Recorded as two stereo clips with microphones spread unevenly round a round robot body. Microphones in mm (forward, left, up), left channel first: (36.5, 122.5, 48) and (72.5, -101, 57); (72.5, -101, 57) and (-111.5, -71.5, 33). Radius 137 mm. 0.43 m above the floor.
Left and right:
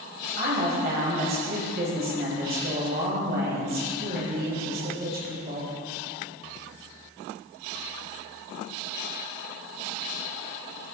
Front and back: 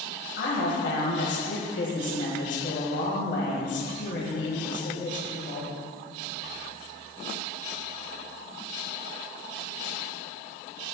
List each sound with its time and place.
0.4 s a woman speaking: 30° right, 2 m